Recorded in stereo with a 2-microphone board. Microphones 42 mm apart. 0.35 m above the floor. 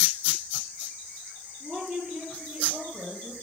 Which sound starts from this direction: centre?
A woman speaking, at 1.6 s.